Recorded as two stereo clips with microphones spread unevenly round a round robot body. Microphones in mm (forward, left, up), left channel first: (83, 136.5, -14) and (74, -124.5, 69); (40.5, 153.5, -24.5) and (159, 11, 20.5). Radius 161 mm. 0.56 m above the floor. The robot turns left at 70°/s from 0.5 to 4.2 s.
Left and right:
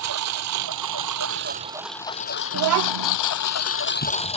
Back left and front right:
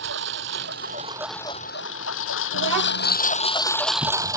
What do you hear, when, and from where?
0.0 s a lawn mower: 80° right; by 4.4 s 20° left
2.5 s a child speaking: 50° right; by 3.2 s 95° right